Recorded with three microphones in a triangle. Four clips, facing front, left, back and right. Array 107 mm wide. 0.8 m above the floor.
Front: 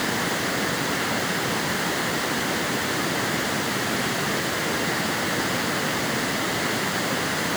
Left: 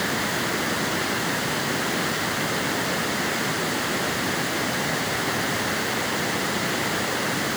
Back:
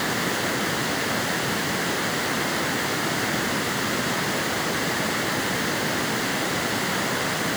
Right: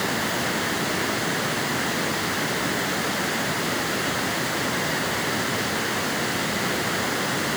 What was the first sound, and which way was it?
Only background noise.